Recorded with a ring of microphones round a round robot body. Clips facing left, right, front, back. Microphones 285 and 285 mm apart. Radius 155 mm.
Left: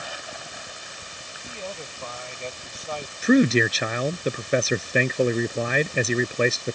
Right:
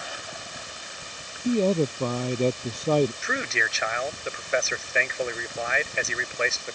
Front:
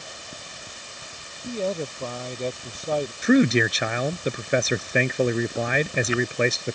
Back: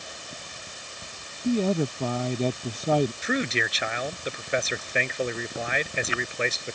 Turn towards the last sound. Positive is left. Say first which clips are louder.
# left 15 dB, front 10 dB
turn(degrees=40)